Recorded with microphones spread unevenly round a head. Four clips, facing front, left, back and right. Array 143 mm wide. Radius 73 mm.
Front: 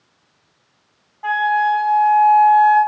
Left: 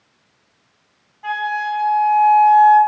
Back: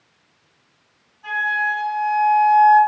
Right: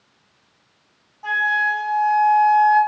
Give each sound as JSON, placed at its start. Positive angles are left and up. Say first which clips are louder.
{"t": 1.2, "sound": "a flute", "louder": "right 1 dB, front 6 dB", "azimuth_deg": -15, "distance_m": 1.4}